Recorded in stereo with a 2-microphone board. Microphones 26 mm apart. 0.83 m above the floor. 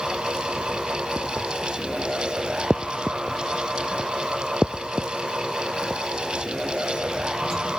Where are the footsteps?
I don't hear footsteps.